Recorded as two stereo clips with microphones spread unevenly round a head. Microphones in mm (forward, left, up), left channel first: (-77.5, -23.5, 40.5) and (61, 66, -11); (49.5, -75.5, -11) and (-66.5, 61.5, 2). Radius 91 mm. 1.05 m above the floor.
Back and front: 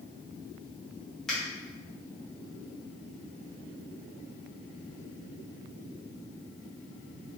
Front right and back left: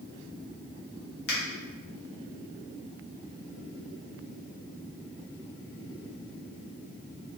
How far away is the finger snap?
About 1.0 m.